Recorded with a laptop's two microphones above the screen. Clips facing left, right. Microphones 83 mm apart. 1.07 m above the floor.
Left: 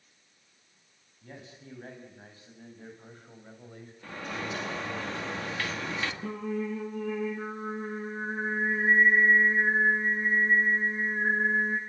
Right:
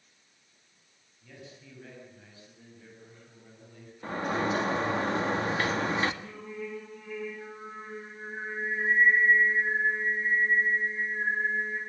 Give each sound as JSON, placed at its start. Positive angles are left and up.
{"t": 1.2, "sound": "a man speaking", "side_deg": 40, "distance_m": 6.5}
{"t": 4.0, "sound": "a sliding door", "side_deg": -35, "distance_m": 2.0}
{"t": 6.2, "sound": "singing", "side_deg": 65, "distance_m": 6.5}